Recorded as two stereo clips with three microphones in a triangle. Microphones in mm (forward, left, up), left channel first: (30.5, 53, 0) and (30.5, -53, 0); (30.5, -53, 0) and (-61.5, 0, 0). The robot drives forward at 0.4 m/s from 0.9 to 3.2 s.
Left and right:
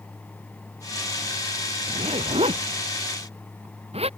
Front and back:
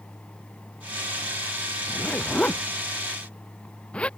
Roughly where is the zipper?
Right.